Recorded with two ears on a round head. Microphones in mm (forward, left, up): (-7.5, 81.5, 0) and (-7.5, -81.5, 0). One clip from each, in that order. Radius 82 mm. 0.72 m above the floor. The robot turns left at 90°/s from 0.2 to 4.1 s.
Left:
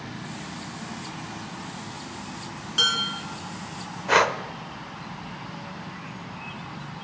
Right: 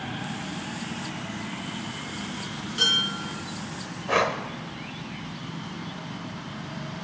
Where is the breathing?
40° left (ahead or behind), 0.5 m.